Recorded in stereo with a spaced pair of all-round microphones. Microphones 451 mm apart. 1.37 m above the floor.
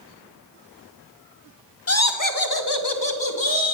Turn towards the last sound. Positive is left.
turn(degrees=85)